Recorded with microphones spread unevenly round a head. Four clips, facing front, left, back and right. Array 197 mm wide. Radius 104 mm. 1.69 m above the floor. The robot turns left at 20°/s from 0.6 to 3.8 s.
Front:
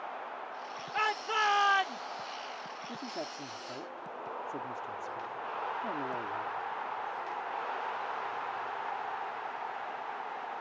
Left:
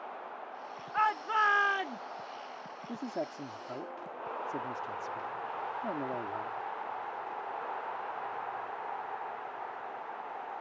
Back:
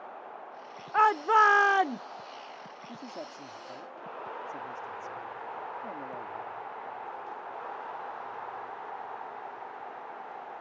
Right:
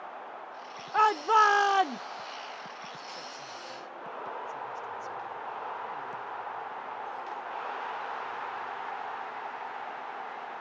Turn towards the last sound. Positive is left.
turn(degrees=60)